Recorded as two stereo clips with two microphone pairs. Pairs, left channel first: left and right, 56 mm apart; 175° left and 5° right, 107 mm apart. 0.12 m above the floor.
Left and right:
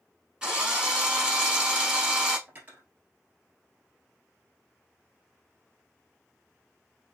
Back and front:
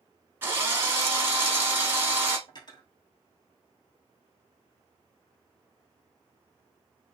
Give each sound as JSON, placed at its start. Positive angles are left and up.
{"t": 0.4, "sound": "a drill", "azimuth_deg": -35, "distance_m": 1.3}
{"t": 2.5, "sound": "cutlery clinking", "azimuth_deg": -145, "distance_m": 1.5}